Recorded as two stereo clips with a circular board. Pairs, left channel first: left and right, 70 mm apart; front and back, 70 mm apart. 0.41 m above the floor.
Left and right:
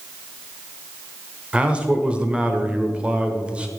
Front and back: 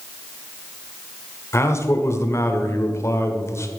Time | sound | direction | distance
1.5 | a man speaking | 20° right | 1.2 m